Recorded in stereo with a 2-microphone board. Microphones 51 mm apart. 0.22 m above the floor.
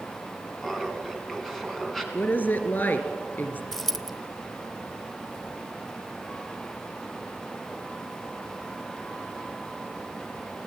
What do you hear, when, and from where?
0.6 s laughter: 5° left (ahead or behind), 3 m
2.1 s a woman speaking: 45° left (ahead or behind), 2.5 m
3.7 s a dropped coin: 5° left (ahead or behind), 0.8 m